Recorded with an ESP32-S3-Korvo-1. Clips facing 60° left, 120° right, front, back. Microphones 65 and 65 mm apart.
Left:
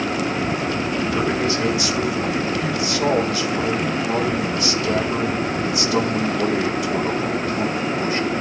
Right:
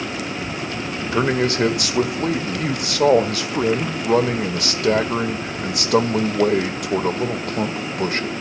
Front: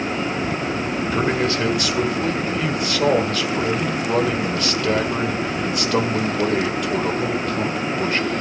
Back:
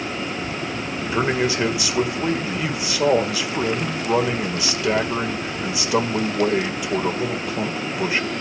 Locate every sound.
1.1 s a man speaking: 100° right, 1.6 m